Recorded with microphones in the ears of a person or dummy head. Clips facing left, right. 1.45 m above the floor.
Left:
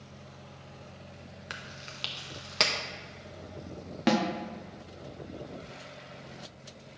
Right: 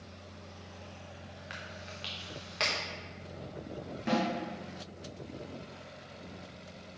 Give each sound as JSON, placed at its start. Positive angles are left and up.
{"t": 1.5, "sound": "chewing", "side_deg": 50, "distance_m": 0.7}
{"t": 4.1, "sound": "a snare drum", "side_deg": 70, "distance_m": 0.9}